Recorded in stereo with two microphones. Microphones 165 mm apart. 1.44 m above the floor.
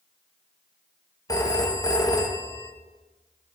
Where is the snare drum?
No snare drum in this recording.